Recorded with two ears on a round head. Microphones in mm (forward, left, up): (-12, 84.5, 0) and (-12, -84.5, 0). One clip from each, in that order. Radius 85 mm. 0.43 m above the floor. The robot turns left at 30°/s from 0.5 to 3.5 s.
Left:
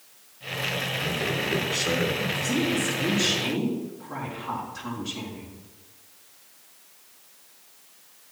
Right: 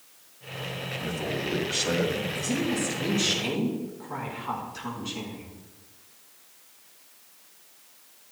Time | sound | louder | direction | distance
1.0 | a man speaking | left 4 dB | 105° right | 2.5 m
2.4 | a woman speaking | left 3 dB | 120° right | 5 m